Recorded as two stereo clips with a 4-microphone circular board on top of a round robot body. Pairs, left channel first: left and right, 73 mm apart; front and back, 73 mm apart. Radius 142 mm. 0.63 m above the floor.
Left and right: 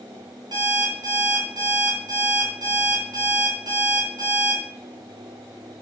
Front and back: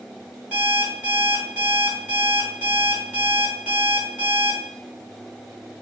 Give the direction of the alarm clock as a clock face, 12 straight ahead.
4 o'clock.